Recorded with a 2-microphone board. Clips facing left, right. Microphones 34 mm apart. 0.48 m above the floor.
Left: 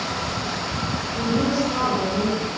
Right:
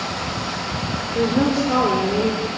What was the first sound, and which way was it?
A woman speaking, 40° right (ahead or behind).